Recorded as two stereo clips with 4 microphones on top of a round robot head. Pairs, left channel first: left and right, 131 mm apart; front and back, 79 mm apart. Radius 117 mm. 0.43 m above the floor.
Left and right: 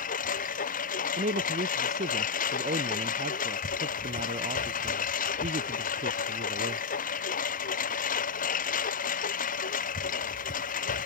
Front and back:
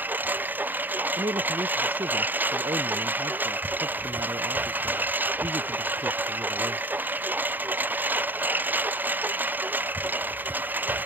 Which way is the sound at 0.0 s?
110° left.